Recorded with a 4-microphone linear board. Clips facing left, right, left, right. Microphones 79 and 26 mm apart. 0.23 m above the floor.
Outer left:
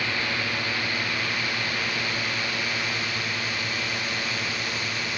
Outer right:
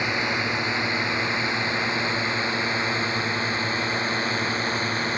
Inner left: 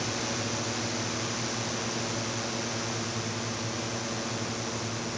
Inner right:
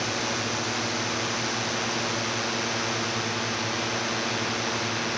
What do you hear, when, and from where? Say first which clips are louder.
0.0 s a drone: outer right 3 dB, inner right 4 dB; 20° right (ahead or behind); by 5.2 s 35° right (ahead or behind)